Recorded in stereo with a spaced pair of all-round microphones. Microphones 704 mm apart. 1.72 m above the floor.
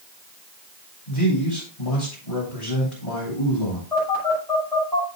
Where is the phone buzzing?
60° left (ahead or behind), 8.5 m.